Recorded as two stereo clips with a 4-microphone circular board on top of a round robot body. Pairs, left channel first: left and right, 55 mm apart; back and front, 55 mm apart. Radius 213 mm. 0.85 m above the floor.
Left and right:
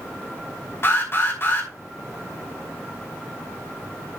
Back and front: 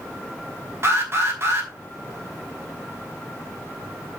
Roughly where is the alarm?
Ahead left.